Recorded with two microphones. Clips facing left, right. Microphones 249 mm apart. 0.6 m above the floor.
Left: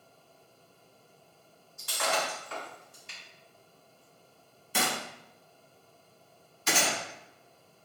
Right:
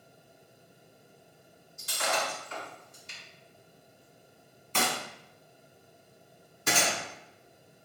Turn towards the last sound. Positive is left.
turn(degrees=-55)  # may be behind; listen again after turning